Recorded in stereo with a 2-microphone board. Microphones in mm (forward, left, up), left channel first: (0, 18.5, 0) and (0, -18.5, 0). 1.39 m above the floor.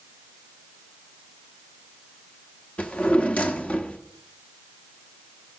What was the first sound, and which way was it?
A drawer, 35° left (ahead or behind).